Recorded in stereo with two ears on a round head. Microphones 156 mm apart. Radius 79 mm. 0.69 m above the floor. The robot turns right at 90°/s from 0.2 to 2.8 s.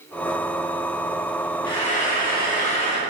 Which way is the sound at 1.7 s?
30° left.